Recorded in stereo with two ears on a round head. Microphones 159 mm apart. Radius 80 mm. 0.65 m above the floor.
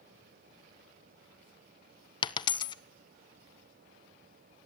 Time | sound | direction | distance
2.2 | a dropped coin | 25° left (ahead or behind) | 0.6 m